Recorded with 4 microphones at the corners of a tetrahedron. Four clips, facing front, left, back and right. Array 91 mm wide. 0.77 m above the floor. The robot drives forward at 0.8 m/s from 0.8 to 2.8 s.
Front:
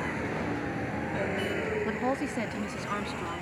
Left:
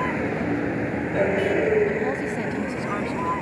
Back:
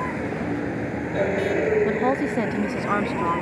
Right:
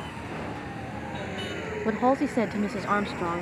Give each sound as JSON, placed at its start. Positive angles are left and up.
{"t": 0.0, "sound": "a vehicle", "azimuth_deg": 115}
{"t": 1.9, "sound": "a woman speaking", "azimuth_deg": -115}